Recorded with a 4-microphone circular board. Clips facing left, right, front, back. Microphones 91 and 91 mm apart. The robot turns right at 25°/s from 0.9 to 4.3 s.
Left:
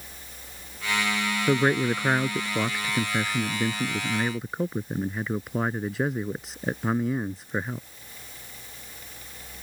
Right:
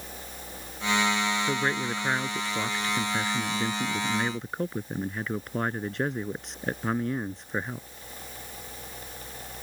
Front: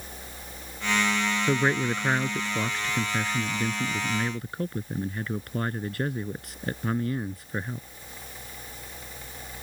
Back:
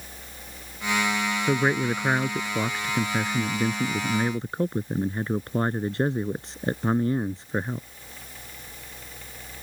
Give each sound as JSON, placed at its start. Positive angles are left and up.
{"t": 1.5, "sound": "a man speaking", "azimuth_deg": 100}